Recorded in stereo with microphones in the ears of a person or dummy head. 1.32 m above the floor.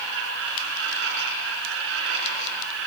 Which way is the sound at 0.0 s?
70° right (ahead or behind).